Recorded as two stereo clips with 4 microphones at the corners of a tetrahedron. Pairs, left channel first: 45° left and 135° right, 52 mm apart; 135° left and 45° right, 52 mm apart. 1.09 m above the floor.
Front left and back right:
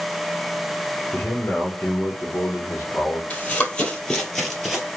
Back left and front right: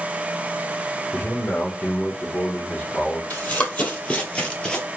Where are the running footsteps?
95° left, 1.5 m; by 4.9 s 155° left, 1.1 m.